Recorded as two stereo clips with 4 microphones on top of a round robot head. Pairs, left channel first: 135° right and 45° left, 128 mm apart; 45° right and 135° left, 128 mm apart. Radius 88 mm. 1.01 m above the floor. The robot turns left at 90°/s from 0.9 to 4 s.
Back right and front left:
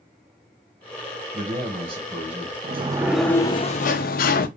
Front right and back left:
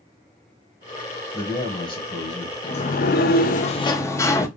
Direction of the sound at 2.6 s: 5° left.